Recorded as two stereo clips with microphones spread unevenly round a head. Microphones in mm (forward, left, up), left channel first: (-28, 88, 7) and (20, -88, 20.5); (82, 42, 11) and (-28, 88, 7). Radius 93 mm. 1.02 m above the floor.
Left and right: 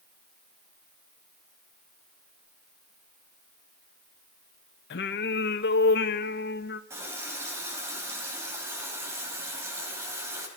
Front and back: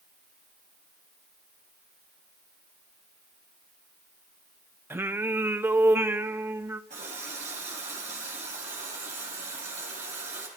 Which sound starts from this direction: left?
Singing, at 4.9 s.